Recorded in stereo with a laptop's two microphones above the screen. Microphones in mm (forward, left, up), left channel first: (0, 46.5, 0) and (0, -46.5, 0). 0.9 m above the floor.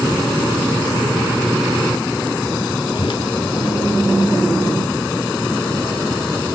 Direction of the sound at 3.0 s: 60° left (ahead or behind).